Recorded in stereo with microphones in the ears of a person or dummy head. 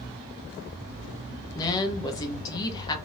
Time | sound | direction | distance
1.6 | a woman speaking | 20° left (ahead or behind) | 0.9 m